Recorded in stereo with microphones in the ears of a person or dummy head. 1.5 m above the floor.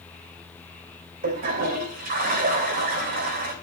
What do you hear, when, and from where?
1.2 s a toilet flushing: 45° right (ahead or behind), 3 m